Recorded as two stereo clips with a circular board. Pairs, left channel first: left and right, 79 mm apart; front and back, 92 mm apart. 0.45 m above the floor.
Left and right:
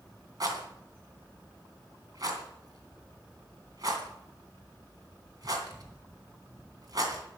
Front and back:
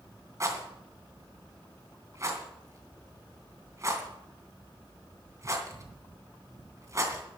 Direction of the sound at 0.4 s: 125° right.